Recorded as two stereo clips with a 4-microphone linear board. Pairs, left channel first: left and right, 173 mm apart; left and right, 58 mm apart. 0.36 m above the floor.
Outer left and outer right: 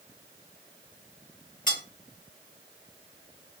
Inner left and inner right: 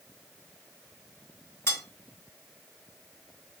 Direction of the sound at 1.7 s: 50° left (ahead or behind).